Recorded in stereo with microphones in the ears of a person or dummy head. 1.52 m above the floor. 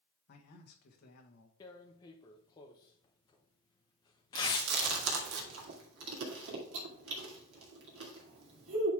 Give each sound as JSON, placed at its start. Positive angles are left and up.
{"t": 0.3, "sound": "a man speaking", "side_deg": 55, "distance_m": 1.6}
{"t": 1.6, "sound": "tearing paper", "side_deg": 20, "distance_m": 0.7}
{"t": 4.3, "sound": "chewing", "side_deg": -70, "distance_m": 2.0}